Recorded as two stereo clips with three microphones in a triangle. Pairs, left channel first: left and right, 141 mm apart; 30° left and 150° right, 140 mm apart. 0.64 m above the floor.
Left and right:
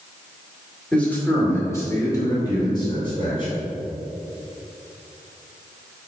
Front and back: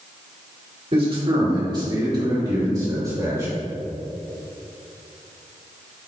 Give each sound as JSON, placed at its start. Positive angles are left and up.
{"t": 0.9, "sound": "a man speaking", "azimuth_deg": 170, "distance_m": 2.0}